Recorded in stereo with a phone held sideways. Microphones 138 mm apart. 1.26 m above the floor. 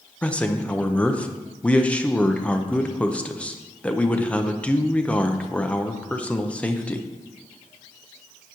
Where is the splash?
No splash in this recording.